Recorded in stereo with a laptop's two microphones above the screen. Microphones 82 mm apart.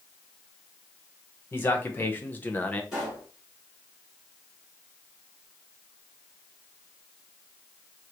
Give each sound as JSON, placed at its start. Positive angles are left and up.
{"t": 1.5, "sound": "a man speaking", "side_deg": 25, "distance_m": 1.2}
{"t": 2.9, "sound": "a pop", "side_deg": -5, "distance_m": 2.5}